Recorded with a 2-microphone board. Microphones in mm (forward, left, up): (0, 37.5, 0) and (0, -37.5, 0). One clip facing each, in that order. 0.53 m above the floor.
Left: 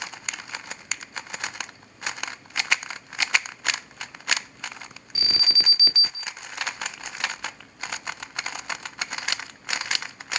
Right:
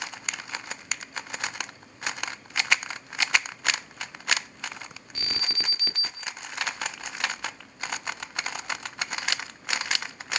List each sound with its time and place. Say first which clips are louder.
5.2 s an alarm: left 3 dB; 5° left (ahead or behind), 0.7 m